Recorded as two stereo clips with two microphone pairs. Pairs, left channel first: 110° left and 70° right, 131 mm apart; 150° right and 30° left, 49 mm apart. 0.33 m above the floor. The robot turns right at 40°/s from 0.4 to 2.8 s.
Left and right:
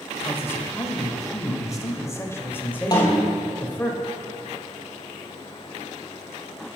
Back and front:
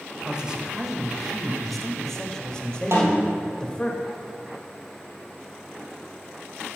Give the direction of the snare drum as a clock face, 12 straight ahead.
10 o'clock.